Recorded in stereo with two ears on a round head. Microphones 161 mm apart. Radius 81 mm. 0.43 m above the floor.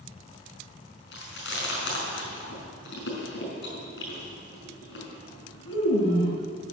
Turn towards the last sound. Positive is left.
turn(degrees=70)  # may be behind; listen again after turning